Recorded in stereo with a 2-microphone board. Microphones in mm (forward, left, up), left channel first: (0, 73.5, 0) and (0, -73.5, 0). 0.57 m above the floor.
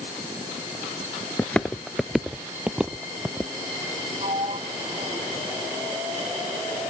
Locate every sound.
1.4 s footsteps: 10° left (ahead or behind); by 3.5 s 10° right (ahead or behind)
4.2 s a sliding door: 45° right (ahead or behind)